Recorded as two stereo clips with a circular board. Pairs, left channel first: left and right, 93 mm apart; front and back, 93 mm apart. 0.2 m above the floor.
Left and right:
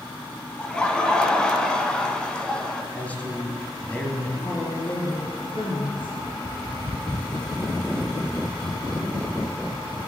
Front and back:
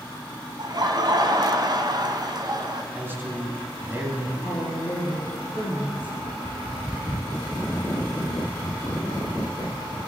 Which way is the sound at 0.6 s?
165° left.